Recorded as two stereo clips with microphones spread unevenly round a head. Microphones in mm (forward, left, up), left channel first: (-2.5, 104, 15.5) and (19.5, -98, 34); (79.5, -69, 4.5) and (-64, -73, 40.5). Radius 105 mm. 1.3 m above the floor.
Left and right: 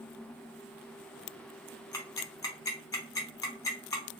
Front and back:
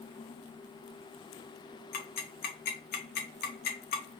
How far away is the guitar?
No guitar in this recording.